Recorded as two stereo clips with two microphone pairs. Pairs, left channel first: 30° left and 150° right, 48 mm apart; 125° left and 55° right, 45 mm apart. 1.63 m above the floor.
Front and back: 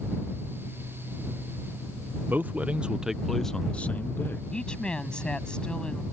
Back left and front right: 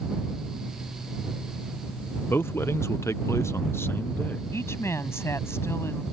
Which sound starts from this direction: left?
A woman speaking, at 4.5 s.